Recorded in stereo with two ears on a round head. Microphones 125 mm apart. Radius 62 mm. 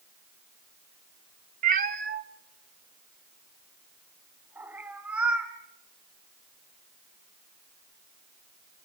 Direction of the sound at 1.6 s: 60° right (ahead or behind).